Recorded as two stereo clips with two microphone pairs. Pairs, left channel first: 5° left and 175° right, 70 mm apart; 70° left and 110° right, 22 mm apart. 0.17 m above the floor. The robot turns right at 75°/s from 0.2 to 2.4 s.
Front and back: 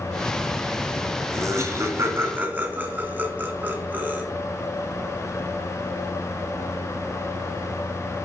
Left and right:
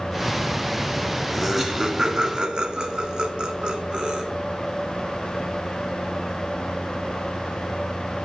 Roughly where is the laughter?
Behind.